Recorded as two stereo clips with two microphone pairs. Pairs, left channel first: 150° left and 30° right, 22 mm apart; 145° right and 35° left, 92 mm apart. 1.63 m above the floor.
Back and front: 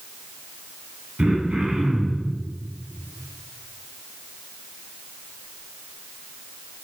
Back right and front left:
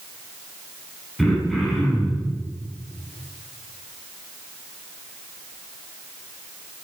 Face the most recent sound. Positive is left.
turn(degrees=-50)